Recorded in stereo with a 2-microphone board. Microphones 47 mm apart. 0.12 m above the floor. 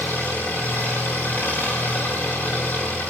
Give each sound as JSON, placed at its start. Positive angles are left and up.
{"t": 0.0, "sound": "an engine running", "side_deg": 35, "distance_m": 9.0}